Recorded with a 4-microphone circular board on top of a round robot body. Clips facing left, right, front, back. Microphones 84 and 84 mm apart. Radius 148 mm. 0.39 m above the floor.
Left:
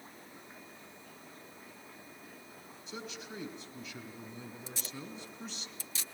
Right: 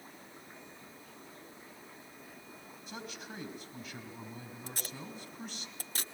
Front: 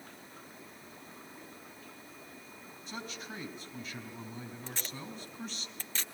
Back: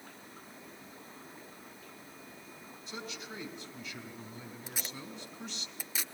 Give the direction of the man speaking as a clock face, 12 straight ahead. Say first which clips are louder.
Left 1 dB, front 1 dB; 2 o'clock.